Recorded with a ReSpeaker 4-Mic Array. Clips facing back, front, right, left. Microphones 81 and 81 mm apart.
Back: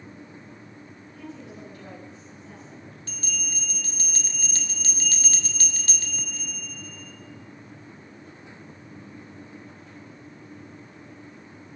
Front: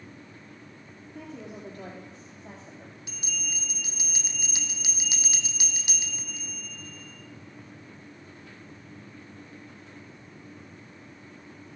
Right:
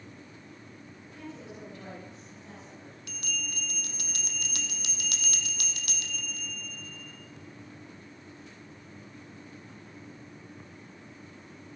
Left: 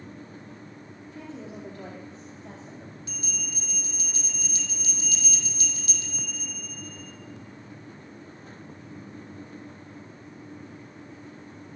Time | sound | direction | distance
1.1 | a woman speaking | 40° left | 4 m
3.1 | a bell | 80° right | 0.9 m